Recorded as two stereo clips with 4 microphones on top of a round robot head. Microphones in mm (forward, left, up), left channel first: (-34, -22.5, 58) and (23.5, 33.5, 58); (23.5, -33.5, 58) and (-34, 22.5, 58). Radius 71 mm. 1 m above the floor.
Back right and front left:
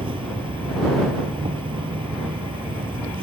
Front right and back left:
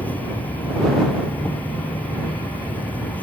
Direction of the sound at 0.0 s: 25° left.